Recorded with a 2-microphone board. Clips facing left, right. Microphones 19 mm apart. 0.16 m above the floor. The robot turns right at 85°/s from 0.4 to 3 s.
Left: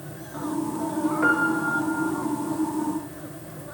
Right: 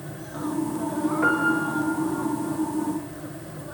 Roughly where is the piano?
Behind.